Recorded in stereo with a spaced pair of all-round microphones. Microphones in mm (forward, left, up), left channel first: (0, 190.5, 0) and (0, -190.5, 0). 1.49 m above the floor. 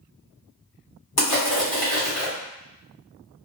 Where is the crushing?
70° left (ahead or behind), 1.6 m.